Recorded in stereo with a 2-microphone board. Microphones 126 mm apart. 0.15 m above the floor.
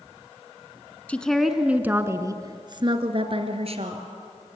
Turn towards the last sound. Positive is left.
turn(degrees=-55)  # may be behind; listen again after turning